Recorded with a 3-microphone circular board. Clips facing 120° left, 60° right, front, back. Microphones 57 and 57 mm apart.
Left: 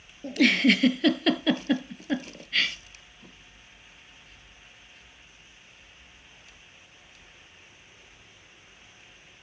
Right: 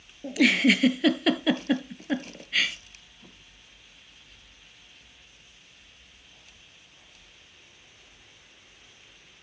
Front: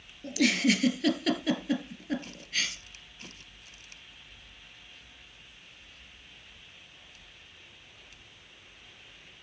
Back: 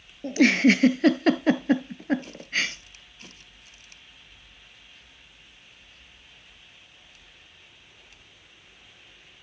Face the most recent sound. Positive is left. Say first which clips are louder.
# even, back 7 dB
turn(degrees=-145)